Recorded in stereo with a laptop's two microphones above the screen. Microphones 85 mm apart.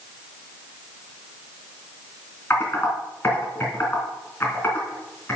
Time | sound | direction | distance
2.5 | typing on a keyboard | 30° left (ahead or behind) | 3 m